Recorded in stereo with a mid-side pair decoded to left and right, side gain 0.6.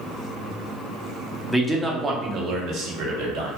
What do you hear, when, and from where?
1.5 s a man speaking: 5° right, 0.8 m; by 3.5 s 75° right, 1.1 m